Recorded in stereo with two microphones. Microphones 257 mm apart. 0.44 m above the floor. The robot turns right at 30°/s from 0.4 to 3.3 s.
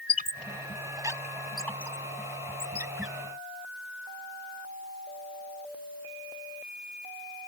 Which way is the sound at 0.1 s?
35° right (ahead or behind).